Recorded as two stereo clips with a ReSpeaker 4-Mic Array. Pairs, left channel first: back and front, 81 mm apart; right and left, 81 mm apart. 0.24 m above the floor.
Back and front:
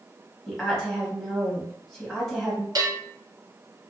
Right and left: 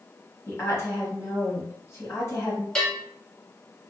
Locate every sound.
0.5 s a woman speaking: 95° right, 1.3 m
2.8 s a bell: 15° right, 1.0 m